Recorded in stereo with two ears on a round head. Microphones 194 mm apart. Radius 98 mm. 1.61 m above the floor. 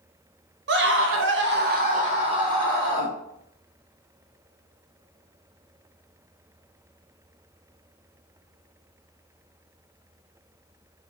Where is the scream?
50° right (ahead or behind), 0.6 m; by 3.1 s 15° right (ahead or behind), 1.0 m.